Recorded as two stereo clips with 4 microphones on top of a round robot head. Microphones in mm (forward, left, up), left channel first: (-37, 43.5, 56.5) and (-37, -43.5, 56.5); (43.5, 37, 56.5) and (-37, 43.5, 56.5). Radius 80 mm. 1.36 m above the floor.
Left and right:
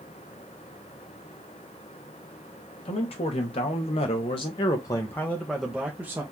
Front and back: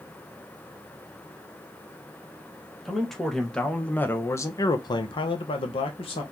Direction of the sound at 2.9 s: 85° left.